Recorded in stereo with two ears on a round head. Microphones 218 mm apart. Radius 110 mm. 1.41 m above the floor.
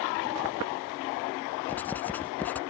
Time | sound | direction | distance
1.7 | writing | 5° left (ahead or behind) | ?